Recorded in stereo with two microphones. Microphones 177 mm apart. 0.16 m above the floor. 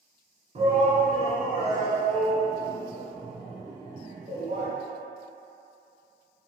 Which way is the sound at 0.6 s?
40° right (ahead or behind).